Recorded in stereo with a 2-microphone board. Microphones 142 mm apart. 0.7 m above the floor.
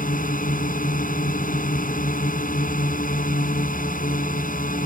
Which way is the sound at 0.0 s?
75° left (ahead or behind).